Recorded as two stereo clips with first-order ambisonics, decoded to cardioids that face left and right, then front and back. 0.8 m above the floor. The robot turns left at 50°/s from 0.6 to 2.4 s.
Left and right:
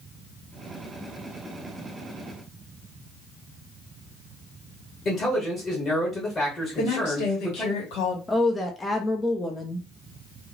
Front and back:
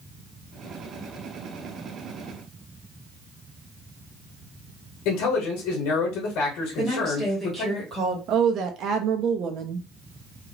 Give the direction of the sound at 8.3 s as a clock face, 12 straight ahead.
7 o'clock.